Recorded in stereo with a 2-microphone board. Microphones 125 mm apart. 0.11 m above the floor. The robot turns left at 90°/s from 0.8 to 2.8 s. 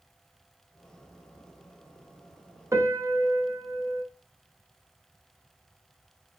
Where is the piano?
25° right (ahead or behind), 1.2 m.